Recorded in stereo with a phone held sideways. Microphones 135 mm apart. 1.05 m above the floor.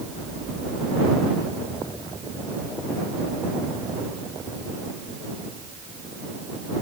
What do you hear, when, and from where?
Only background noise.